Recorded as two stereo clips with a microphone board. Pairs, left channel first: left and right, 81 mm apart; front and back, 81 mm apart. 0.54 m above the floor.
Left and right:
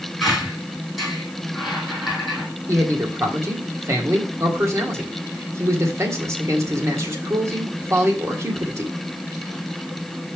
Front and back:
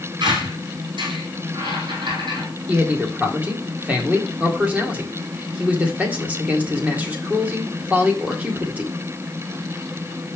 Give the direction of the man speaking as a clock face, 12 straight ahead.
4 o'clock.